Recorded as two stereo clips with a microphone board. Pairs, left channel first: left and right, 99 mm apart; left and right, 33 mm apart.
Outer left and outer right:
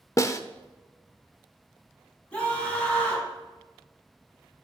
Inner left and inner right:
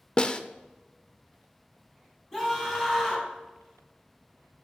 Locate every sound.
0.2 s a snare drum: 35° left (ahead or behind), 0.6 m
2.3 s a scream: 15° left (ahead or behind), 4 m